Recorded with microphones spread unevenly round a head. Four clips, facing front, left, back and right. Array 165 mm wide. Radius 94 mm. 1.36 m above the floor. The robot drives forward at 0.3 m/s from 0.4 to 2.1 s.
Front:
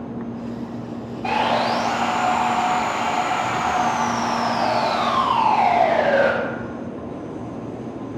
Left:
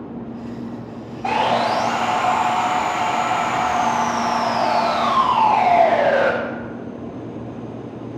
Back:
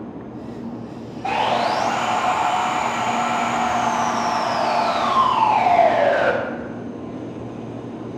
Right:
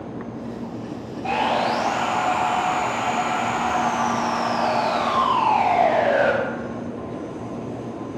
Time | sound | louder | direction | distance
1.2 | sawing | left 3 dB, even | 95° left | 1.8 m